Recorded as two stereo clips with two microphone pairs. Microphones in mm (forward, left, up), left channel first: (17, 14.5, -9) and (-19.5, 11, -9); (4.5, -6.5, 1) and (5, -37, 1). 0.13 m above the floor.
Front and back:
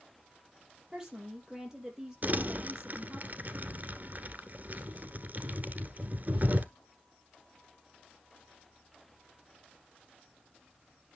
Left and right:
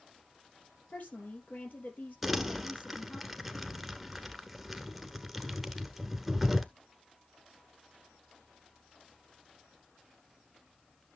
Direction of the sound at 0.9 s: 110° left.